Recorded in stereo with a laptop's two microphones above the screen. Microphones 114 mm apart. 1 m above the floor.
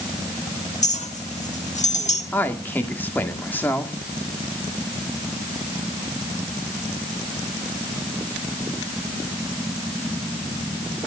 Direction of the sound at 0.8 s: 85° left.